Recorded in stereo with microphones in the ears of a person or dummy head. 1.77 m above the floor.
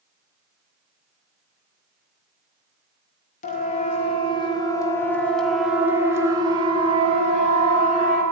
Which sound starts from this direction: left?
A siren, at 3.4 s.